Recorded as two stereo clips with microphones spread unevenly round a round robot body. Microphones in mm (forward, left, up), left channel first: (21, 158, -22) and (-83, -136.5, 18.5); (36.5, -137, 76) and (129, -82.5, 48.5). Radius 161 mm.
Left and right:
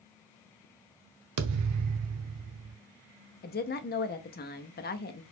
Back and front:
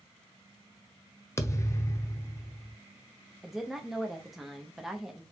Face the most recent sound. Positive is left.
turn(degrees=105)